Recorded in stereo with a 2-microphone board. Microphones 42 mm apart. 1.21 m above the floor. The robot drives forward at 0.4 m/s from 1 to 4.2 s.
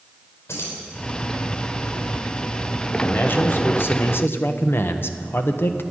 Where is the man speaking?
50° left (ahead or behind), 1.1 m; by 5.8 s 60° left (ahead or behind), 1.0 m.